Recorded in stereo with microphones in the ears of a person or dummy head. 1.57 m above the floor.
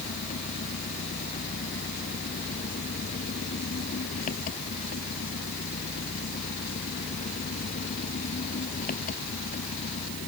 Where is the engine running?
40° left (ahead or behind).